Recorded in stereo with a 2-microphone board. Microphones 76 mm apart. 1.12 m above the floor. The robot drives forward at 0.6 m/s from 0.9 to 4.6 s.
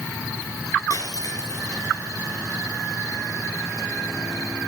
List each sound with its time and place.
0.9 s breaking glass: 55° left (ahead or behind), 4 m; by 1.8 s 45° left (ahead or behind), 4 m